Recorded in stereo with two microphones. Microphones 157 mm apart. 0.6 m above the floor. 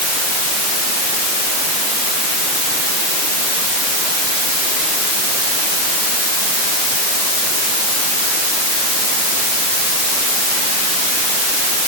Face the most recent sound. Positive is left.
No sound to turn to.